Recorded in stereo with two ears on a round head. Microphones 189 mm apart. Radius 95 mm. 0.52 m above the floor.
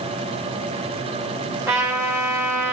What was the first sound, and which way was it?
A trumpet, 15° right (ahead or behind).